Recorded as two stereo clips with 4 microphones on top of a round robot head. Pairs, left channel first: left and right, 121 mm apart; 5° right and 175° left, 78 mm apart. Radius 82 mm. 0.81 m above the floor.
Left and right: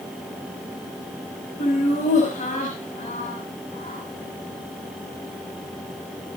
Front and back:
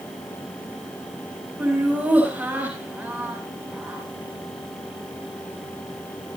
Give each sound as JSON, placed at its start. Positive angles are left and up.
{"t": 1.6, "sound": "laughter", "azimuth_deg": 105, "distance_m": 5.5}